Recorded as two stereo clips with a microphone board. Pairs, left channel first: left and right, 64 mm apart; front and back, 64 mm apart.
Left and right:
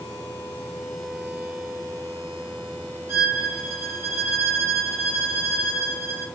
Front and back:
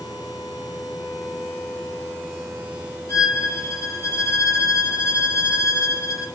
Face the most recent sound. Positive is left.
turn(degrees=-40)